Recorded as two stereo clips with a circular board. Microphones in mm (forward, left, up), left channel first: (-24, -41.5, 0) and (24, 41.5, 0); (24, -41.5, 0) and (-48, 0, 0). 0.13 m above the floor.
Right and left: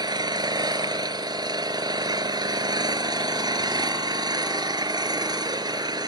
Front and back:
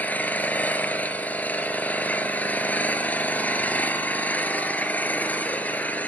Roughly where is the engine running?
Ahead left.